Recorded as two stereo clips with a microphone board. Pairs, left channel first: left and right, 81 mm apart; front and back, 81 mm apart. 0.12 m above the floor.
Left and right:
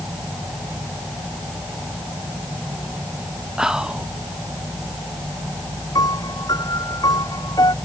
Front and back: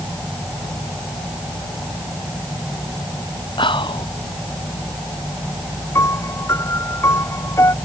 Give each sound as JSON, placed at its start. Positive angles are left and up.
{"t": 3.6, "sound": "whispering", "azimuth_deg": -10}
{"t": 6.0, "sound": "a piano", "azimuth_deg": 55}